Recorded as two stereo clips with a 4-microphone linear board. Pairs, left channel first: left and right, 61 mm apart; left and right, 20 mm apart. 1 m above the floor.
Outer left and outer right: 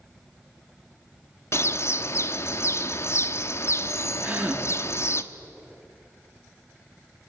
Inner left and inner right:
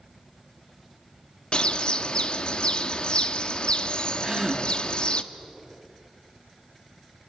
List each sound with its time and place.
1.5 s a bird: 50° left (ahead or behind), 1.0 m
4.2 s a gasp: 25° right (ahead or behind), 1.7 m